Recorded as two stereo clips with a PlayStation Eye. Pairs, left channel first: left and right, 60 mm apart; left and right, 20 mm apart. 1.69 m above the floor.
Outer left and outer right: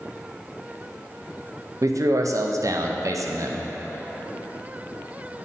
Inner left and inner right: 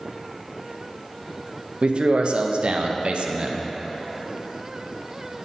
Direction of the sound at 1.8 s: 65° right (ahead or behind).